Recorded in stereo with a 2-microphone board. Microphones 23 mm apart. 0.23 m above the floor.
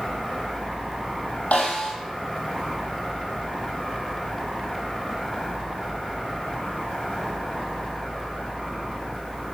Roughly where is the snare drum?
Left.